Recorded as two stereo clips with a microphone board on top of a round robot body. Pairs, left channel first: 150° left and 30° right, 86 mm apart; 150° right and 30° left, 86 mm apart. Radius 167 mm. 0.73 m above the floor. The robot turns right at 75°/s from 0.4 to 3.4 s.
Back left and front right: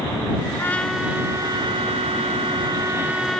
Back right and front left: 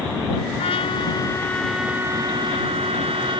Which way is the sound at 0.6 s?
145° right.